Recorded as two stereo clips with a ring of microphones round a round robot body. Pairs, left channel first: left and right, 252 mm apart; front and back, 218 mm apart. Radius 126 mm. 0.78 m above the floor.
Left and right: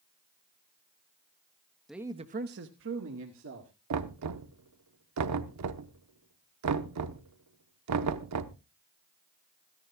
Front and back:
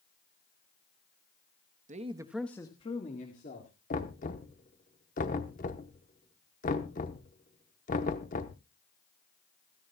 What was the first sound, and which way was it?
A man speaking, straight behind.